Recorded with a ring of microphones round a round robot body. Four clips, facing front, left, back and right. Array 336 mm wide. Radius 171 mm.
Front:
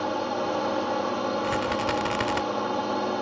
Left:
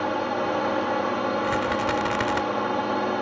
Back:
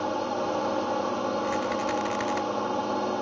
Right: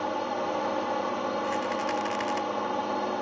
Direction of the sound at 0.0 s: 80° left.